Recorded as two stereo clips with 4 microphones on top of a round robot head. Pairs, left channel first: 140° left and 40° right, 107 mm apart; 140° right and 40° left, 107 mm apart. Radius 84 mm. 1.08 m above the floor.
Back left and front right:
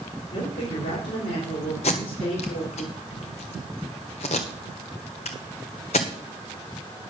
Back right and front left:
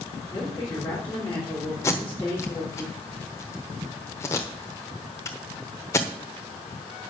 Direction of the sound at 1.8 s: 160° left.